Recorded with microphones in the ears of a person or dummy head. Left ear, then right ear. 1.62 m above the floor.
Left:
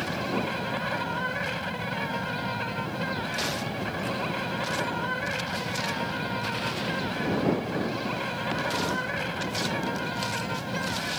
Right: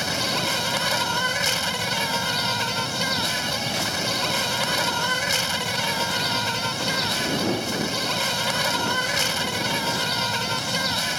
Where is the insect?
90° right.